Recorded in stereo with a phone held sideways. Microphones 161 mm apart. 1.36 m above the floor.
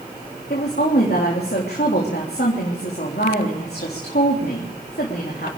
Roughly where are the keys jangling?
I don't hear keys jangling.